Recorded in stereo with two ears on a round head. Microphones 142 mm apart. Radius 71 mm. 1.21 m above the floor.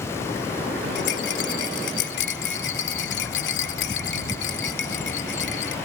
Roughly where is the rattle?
Left.